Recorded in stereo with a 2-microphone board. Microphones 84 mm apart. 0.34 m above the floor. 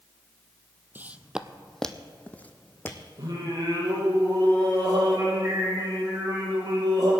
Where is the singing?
50° right (ahead or behind), 5.5 m.